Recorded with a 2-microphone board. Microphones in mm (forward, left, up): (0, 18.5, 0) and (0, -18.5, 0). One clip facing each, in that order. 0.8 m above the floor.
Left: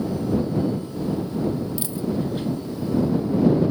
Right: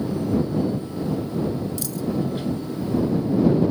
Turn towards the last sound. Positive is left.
turn(degrees=25)  # may be behind; listen again after turning